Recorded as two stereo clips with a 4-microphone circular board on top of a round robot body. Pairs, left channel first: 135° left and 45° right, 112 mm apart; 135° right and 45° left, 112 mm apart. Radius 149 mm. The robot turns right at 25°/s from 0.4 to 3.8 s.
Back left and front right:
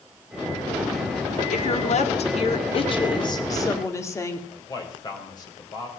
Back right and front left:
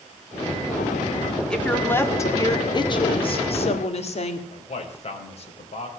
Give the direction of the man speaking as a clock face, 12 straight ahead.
6 o'clock.